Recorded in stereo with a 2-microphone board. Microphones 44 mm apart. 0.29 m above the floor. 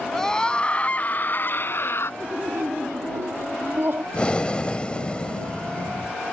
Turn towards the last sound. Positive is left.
turn(degrees=25)  # may be behind; listen again after turning